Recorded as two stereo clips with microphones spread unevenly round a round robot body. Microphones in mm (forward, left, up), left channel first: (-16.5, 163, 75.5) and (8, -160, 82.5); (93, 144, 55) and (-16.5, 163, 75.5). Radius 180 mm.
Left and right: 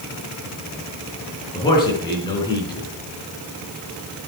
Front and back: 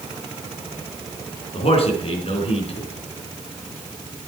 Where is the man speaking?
15° left, 4 m.